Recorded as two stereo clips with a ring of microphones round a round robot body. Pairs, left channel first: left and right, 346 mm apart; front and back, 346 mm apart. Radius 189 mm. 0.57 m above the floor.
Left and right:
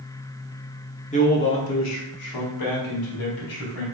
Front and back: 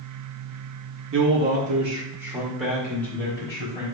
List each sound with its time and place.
1.1 s a man speaking: 150° left, 1.0 m; by 3.8 s 80° left, 2.5 m